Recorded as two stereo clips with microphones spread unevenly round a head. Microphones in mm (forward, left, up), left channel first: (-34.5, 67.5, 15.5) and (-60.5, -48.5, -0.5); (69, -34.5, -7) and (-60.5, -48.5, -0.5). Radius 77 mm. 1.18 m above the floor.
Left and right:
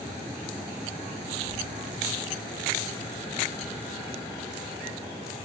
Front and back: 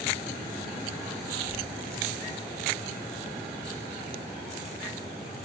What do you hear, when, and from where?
1.5 s whispering: 125° right, 1.7 m